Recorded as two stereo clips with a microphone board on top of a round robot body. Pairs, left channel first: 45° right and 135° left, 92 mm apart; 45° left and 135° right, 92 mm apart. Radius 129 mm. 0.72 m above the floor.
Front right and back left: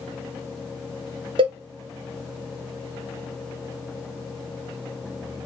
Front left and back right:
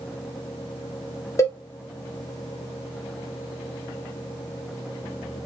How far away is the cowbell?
About 0.9 m.